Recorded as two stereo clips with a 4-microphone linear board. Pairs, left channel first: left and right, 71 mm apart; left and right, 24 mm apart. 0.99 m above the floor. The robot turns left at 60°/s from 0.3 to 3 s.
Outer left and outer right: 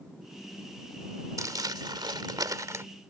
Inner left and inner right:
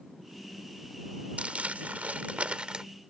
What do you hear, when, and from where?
1.4 s crumpling: 50° right; by 2.8 s 140° right